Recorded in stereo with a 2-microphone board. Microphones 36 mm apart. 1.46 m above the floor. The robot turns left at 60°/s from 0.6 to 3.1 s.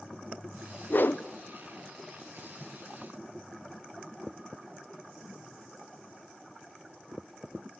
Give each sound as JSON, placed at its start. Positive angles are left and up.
{"t": 0.9, "sound": "a whoosh", "side_deg": 60, "distance_m": 0.8}